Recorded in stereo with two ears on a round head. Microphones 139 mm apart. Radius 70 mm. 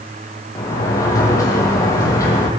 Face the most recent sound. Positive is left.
turn(degrees=20)  # may be behind; listen again after turning